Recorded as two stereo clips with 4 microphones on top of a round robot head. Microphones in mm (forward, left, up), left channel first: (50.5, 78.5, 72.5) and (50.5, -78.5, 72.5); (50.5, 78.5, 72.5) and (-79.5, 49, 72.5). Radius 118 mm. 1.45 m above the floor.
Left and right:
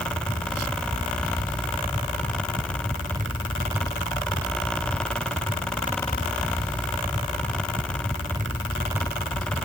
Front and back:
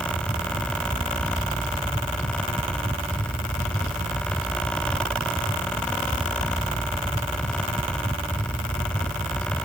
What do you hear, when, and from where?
Only background noise.